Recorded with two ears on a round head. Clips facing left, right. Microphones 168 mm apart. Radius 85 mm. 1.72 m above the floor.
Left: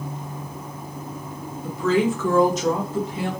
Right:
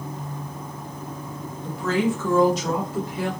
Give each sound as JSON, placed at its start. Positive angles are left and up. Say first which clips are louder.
{"t": 1.6, "sound": "a woman speaking", "louder": "left 3 dB", "side_deg": 70, "distance_m": 1.4}